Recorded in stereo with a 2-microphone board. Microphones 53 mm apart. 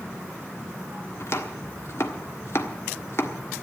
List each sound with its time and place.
1.2 s chopping: 60° left (ahead or behind), 1.4 m